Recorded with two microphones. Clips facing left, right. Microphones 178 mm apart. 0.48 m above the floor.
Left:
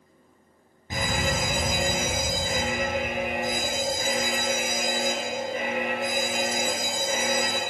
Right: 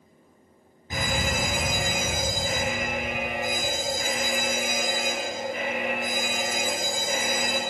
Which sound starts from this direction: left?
A fire alarm, at 0.9 s.